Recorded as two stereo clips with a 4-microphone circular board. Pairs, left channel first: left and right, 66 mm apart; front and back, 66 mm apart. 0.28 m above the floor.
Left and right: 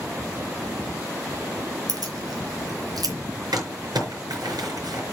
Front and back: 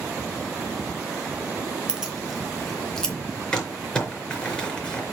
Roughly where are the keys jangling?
Right.